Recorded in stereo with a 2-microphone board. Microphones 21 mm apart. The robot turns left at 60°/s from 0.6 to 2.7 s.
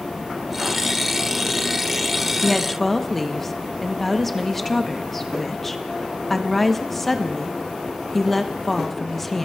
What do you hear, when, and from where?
2.4 s a woman speaking: centre (ahead or behind), 0.8 m; by 9.4 s 10° left (ahead or behind), 0.8 m